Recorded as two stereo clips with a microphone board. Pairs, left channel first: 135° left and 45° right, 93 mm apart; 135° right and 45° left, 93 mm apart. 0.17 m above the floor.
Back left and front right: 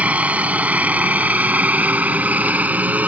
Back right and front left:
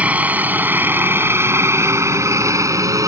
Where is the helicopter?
Straight ahead; by 3.1 s 20° left.